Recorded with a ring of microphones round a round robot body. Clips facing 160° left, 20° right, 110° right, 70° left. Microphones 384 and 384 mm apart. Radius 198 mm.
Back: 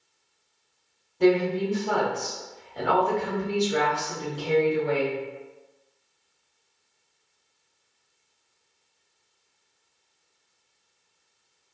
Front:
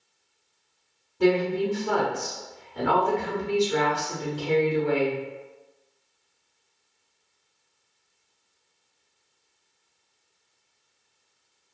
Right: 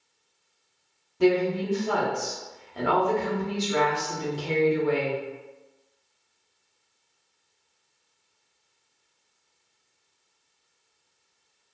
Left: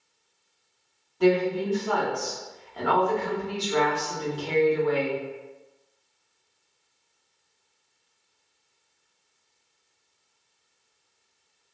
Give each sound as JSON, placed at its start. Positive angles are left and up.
{"t": 1.2, "sound": "a woman speaking", "azimuth_deg": -85, "distance_m": 1.0}